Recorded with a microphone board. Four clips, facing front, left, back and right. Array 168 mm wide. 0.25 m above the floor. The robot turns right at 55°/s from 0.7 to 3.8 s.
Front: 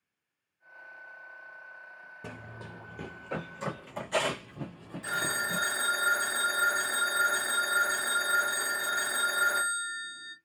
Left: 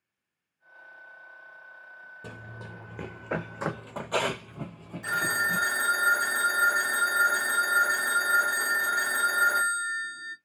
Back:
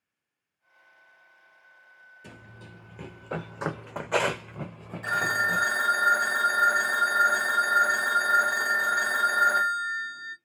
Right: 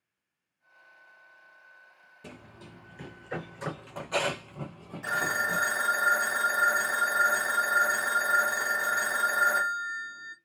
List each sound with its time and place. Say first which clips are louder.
2.2 s running footsteps: left 3 dB, front 4 dB; 25° left, 1.1 m; by 5.6 s 155° right, 1.3 m
5.0 s a phone ringing: left 1 dB, back 6 dB; 155° right, 0.6 m